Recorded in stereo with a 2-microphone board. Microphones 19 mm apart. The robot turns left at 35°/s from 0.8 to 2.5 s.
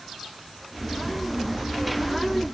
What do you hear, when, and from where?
Only background noise.